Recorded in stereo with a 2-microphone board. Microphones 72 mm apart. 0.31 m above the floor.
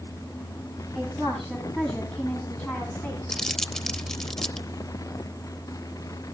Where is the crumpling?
10° left (ahead or behind), 0.6 m.